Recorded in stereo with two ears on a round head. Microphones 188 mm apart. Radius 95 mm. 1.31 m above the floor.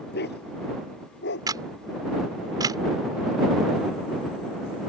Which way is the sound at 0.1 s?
55° left (ahead or behind).